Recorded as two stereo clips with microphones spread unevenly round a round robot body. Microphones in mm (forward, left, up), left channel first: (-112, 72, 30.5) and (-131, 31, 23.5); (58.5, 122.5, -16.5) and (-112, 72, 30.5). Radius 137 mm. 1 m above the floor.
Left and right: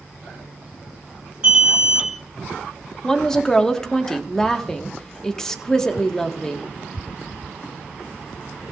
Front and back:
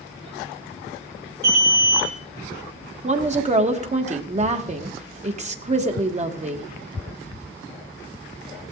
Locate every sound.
1.4 s an alarm: straight behind, 5.5 m
3.0 s a woman speaking: 145° left, 1.7 m